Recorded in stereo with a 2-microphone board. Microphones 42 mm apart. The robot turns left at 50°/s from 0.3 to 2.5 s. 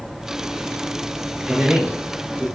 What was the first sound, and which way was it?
A man speaking, 5° left.